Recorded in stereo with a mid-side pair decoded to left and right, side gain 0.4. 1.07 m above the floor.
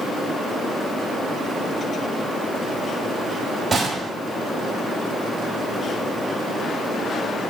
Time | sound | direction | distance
3.7 | a gunshot | 35° right | 4.5 m